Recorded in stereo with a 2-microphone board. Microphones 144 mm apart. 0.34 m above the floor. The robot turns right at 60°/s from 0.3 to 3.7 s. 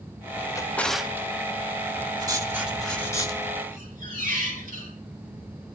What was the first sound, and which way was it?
A drawer, 25° left (ahead or behind).